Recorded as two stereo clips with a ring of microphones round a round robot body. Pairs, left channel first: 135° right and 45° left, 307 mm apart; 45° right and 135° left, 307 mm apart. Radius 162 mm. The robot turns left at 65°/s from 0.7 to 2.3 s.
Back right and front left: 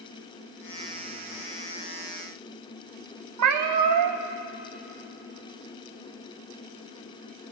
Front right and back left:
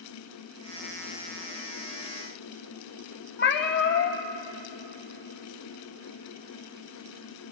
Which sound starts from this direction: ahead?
A cat meowing, at 3.4 s.